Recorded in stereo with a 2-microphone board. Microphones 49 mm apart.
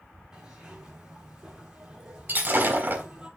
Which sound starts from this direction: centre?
A zipper, at 0.3 s.